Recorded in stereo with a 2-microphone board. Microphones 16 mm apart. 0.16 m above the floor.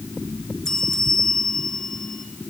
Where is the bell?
40° left (ahead or behind), 2.5 m.